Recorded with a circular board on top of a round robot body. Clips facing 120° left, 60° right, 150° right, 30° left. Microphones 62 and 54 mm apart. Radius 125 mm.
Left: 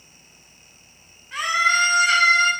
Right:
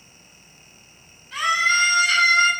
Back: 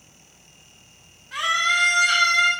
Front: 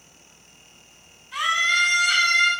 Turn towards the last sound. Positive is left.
turn(degrees=-175)